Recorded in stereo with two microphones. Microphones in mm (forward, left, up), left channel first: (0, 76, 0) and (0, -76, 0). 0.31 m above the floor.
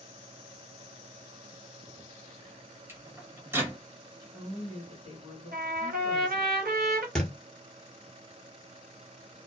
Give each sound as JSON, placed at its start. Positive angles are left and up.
{"t": 2.9, "sound": "a microwave", "side_deg": -15, "distance_m": 1.0}
{"t": 4.2, "sound": "a woman speaking", "side_deg": -35, "distance_m": 1.4}
{"t": 5.5, "sound": "a trumpet", "side_deg": -85, "distance_m": 1.1}
{"t": 7.2, "sound": "a thud", "side_deg": 5, "distance_m": 1.2}